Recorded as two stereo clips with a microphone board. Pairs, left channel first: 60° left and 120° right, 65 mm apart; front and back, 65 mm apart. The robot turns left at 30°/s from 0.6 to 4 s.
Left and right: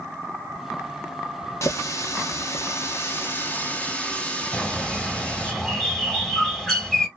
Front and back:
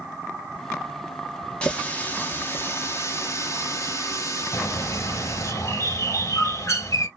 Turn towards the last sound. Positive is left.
turn(degrees=-20)